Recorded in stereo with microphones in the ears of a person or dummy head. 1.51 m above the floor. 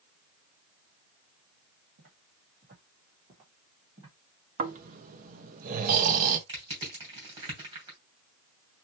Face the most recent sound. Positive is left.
turn(degrees=-35)  # may be behind; listen again after turning